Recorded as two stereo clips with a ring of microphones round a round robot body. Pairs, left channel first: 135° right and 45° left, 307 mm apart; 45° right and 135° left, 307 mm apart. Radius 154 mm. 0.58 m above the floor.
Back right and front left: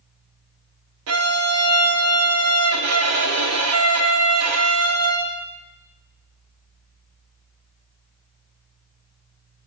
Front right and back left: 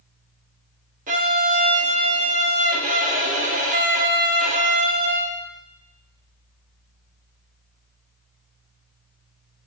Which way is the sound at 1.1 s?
75° left.